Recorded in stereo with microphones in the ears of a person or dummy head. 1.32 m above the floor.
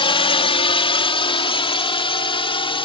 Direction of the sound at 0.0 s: 25° left (ahead or behind).